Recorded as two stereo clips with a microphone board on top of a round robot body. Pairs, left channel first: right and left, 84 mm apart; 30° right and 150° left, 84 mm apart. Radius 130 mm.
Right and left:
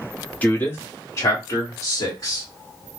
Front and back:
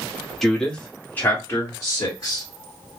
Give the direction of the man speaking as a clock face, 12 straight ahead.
4 o'clock.